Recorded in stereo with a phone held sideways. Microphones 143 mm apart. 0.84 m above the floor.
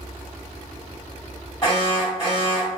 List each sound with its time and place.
1.6 s an alarm: 30° left (ahead or behind), 1.9 m